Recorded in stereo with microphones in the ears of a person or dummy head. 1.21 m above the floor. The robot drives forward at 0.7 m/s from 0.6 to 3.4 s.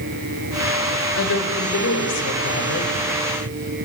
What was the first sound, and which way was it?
A woman speaking, 70° left (ahead or behind).